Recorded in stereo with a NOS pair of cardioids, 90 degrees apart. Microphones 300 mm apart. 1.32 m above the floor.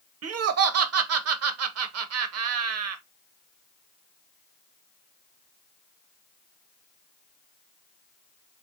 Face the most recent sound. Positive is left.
turn(degrees=-55)